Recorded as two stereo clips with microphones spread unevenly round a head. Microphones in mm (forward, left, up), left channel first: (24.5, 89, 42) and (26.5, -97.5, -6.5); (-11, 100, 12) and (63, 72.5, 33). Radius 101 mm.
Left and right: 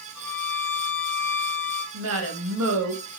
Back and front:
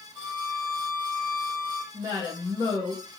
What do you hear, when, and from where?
0.1 s a violin: 110° right, 1.4 m
1.9 s a woman speaking: 85° right, 0.9 m